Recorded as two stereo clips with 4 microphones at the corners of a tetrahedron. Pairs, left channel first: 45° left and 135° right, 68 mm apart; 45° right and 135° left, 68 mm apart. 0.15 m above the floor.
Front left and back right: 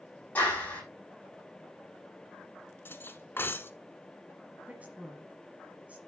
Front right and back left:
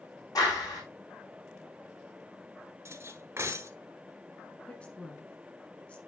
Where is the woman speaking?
95° right, 1.3 m.